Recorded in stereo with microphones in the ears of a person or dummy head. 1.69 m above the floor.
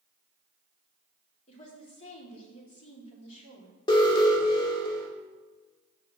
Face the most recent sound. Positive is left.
turn(degrees=25)  # may be behind; listen again after turning